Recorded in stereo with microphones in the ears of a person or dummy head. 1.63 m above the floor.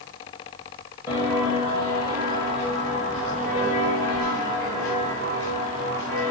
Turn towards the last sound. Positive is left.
turn(degrees=-45)  # may be behind; listen again after turning